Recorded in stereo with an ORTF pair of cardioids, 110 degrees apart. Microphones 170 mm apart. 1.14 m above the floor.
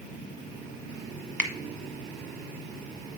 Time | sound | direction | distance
1.4 | a finger snap | 5° left | 1.2 m